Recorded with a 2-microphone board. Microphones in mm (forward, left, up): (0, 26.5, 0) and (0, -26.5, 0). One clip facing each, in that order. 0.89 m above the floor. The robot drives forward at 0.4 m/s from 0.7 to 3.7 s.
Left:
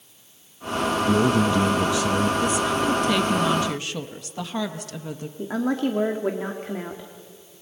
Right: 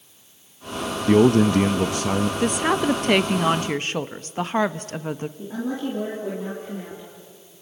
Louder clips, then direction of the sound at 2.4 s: Right 1 dB; 50° right (ahead or behind).